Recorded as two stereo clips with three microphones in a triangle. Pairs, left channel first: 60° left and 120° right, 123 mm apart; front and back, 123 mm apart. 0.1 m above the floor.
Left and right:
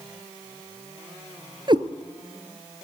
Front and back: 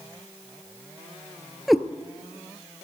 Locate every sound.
1.7 s a cat meowing: 90° right, 0.9 m